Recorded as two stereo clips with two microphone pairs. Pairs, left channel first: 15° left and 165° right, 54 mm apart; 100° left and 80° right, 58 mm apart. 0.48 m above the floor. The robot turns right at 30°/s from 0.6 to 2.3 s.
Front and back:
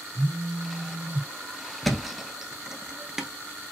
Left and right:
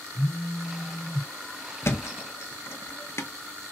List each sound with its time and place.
0.1 s a phone buzzing: 170° left, 0.7 m; by 1.3 s 170° right, 0.7 m
1.8 s a thud: 100° left, 0.5 m; by 3.3 s 115° left, 0.5 m